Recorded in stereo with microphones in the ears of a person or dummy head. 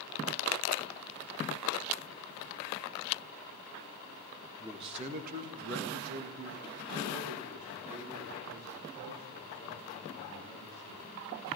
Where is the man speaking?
20° right (ahead or behind), 2.5 m; by 11.1 s 45° right (ahead or behind), 8.5 m.